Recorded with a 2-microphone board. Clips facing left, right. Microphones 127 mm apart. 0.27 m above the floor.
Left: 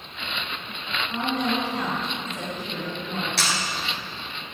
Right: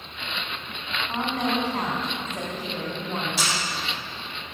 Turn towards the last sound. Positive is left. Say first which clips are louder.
# left 2 dB
turn(degrees=70)  # may be behind; listen again after turning